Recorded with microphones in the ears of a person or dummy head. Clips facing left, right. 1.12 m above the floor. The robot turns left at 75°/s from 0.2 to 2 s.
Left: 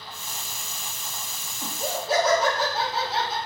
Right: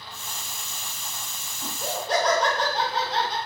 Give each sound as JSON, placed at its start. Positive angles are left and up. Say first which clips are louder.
{"t": 1.6, "sound": "laughter", "louder": "left 1 dB", "side_deg": 20, "distance_m": 0.7}